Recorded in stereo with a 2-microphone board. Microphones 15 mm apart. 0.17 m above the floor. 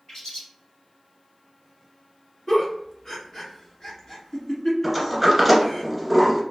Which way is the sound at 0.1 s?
60° left (ahead or behind).